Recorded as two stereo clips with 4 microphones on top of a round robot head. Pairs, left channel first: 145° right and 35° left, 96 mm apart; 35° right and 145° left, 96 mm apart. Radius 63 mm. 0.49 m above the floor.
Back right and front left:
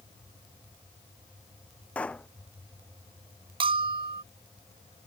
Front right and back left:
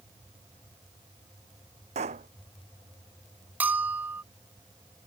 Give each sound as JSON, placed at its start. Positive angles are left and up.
{"t": 1.9, "sound": "a pop", "azimuth_deg": 135}
{"t": 3.6, "sound": "a bell", "azimuth_deg": 70}